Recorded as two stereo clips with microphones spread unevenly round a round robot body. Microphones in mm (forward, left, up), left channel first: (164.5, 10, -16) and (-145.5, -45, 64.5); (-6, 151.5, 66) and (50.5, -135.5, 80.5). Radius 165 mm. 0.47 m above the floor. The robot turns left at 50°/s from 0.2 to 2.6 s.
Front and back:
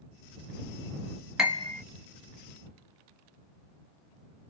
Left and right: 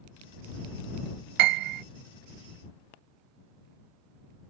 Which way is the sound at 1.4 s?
80° right.